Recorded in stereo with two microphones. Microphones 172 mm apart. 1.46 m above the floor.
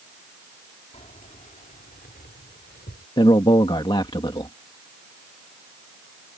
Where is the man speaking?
30° left (ahead or behind).